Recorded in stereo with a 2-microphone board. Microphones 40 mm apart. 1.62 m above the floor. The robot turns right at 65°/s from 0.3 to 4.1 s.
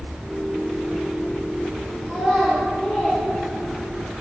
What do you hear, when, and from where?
2.1 s a child speaking: 25° right (ahead or behind), 5 m; by 4.1 s 75° left (ahead or behind), 5 m